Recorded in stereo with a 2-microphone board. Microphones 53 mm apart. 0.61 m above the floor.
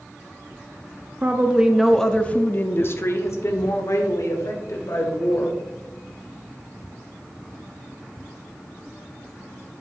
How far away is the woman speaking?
About 0.6 m.